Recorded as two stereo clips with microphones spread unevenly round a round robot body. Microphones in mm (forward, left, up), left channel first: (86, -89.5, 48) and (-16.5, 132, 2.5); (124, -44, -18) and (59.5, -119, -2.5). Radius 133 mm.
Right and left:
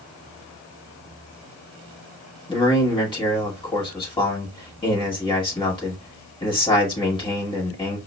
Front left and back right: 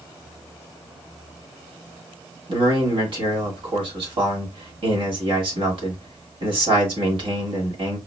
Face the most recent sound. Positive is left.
turn(degrees=-140)